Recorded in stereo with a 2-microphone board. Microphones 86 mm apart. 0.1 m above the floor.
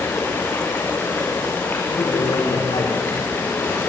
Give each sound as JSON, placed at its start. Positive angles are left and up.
{"t": 0.0, "sound": "running water", "side_deg": 25, "distance_m": 4.0}
{"t": 1.9, "sound": "a man speaking", "side_deg": 80, "distance_m": 9.5}